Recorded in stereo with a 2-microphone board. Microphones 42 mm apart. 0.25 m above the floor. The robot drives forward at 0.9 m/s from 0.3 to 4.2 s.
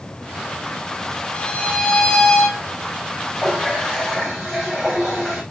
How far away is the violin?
About 1.3 m.